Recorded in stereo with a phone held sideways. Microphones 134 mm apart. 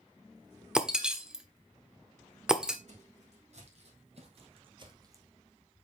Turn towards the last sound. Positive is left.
turn(degrees=-20)  # may be behind; listen again after turning